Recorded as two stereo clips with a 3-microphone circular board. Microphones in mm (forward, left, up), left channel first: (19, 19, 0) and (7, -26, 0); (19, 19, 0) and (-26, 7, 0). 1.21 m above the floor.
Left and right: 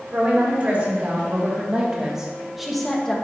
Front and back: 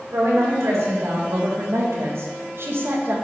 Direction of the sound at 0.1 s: 160° right.